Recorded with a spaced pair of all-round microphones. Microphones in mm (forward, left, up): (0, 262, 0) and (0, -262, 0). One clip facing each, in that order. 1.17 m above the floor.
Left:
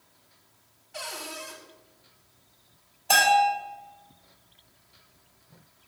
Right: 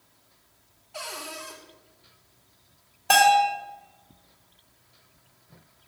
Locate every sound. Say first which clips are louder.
0.9 s a cupboard door: even; 40° left (ahead or behind), 1.5 m
3.1 s a bell: right 3 dB; 75° right (ahead or behind), 2.5 m